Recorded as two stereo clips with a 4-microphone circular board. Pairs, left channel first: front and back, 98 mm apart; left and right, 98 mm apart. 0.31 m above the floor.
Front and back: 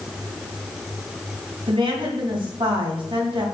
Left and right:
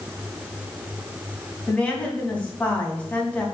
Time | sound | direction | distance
1.7 | a woman speaking | 165° left | 3 m